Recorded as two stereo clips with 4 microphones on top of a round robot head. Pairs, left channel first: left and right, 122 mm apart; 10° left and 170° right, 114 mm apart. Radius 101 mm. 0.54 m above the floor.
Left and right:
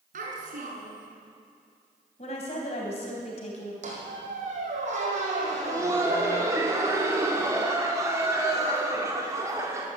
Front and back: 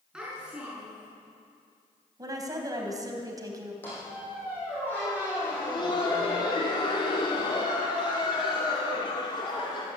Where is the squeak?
65° right, 4.5 m.